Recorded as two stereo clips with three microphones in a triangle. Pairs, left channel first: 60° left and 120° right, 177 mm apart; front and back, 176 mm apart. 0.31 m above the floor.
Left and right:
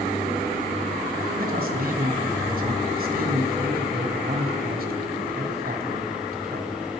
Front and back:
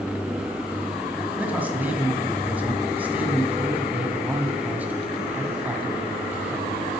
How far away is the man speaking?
About 2 m.